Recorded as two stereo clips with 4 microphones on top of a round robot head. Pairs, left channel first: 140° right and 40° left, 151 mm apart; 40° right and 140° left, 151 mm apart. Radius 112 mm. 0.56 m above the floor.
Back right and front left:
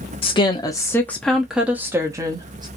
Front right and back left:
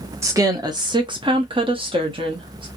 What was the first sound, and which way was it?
A woman speaking, 160° right.